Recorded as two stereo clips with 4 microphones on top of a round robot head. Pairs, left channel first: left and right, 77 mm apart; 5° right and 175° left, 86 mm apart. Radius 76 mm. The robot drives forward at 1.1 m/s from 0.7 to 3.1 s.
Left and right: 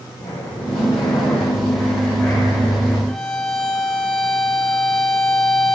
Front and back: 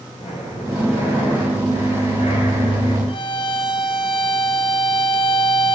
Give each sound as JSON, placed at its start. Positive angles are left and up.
{"t": 0.2, "sound": "breathing", "azimuth_deg": 5, "distance_m": 8.0}
{"t": 3.1, "sound": "a violin", "azimuth_deg": 5, "distance_m": 2.0}